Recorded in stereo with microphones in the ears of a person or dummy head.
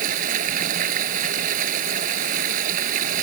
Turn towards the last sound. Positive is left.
turn(degrees=-45)  # may be behind; listen again after turning